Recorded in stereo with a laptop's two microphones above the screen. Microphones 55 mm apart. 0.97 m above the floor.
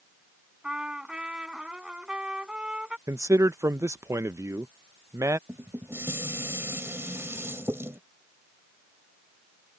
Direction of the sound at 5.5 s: 50° right (ahead or behind).